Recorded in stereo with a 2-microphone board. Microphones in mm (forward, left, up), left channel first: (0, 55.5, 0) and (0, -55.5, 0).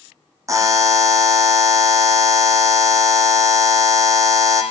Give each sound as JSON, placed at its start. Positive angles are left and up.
{"t": 0.5, "sound": "a buzzer", "side_deg": -30, "distance_m": 1.2}